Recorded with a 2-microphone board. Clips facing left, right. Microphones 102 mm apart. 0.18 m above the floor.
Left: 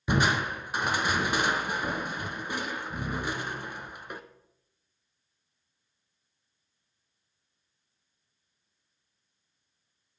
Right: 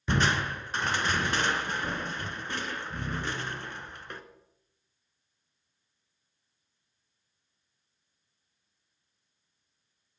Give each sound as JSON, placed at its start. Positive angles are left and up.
{"t": 0.1, "sound": "crushing", "side_deg": 10, "distance_m": 0.9}